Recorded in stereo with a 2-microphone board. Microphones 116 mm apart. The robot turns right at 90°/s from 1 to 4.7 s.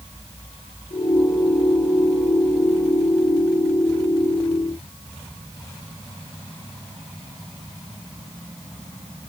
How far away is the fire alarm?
No fire alarm in this recording.